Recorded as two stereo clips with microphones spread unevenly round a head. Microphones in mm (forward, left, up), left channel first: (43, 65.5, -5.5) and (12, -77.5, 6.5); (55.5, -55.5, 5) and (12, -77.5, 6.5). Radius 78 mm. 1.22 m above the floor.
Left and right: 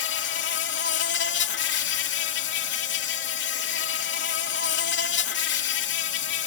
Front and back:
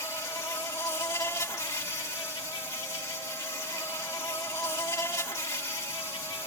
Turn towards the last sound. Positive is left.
turn(degrees=90)